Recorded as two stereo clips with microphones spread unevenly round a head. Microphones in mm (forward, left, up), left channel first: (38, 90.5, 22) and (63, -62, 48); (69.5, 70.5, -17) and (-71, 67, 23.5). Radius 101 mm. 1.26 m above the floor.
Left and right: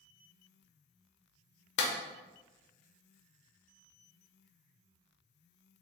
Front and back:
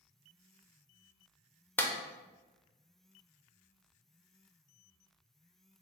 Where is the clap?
85° left, 0.6 m.